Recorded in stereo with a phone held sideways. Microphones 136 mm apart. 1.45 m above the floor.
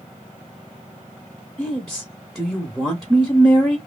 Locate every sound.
1.6 s a woman speaking: centre (ahead or behind), 0.7 m